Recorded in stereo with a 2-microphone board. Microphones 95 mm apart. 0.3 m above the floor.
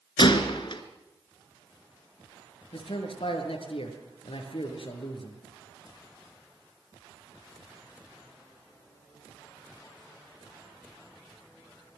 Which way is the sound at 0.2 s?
55° left (ahead or behind).